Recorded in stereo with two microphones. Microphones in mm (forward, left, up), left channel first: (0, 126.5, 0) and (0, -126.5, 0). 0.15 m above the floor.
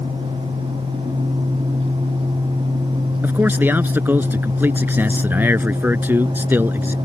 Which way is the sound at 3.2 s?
10° right (ahead or behind).